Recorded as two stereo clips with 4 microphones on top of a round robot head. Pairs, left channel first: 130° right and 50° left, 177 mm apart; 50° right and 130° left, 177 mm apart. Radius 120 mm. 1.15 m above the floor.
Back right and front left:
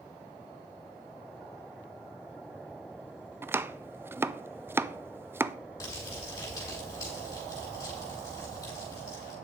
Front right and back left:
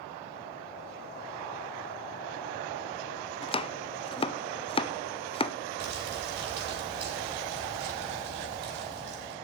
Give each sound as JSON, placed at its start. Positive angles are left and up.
{"t": 3.4, "sound": "chopping", "azimuth_deg": -20, "distance_m": 0.5}
{"t": 5.8, "sound": "crumpling", "azimuth_deg": 160, "distance_m": 5.0}